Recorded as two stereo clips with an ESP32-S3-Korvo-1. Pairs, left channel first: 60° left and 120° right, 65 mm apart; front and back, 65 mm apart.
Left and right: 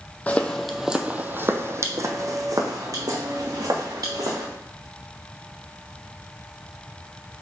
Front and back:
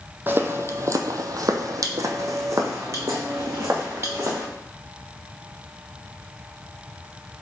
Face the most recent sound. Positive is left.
turn(degrees=-130)